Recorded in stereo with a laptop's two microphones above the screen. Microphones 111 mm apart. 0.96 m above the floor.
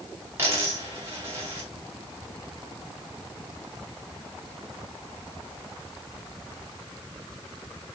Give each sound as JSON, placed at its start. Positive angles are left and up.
{"t": 0.4, "sound": "a dropped coin", "side_deg": -25, "distance_m": 1.4}